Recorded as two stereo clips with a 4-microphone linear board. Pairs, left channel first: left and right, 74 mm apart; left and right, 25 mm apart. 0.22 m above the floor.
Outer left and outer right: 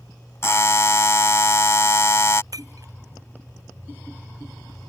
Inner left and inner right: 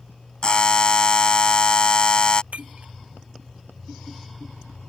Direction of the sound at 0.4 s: 40° left (ahead or behind).